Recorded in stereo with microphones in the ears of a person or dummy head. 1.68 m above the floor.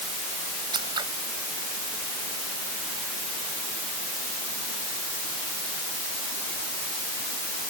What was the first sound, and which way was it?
Scissors, 20° right (ahead or behind).